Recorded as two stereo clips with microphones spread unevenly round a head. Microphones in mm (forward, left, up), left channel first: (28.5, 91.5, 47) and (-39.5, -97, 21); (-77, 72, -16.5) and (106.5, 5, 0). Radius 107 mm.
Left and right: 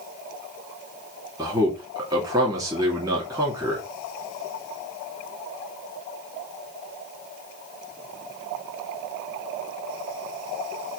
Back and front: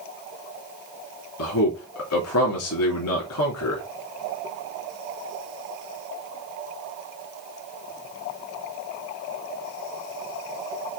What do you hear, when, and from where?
1.4 s a man speaking: 175° left, 3 m